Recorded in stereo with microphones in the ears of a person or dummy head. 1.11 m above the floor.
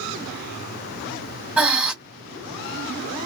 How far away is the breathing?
About 1.7 m.